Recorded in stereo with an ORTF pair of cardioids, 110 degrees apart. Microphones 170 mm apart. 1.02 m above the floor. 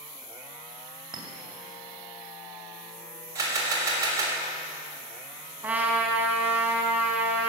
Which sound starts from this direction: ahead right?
A clink, at 1.1 s.